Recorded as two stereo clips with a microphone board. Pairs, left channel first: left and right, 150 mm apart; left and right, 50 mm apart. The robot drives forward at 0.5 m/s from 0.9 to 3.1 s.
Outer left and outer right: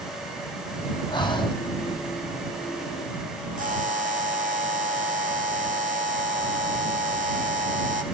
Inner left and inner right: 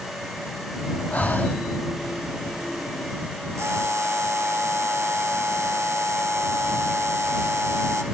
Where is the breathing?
30° left (ahead or behind), 3.5 m.